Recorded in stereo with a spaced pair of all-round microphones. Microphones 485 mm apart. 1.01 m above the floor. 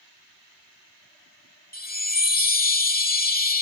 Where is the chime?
20° left (ahead or behind).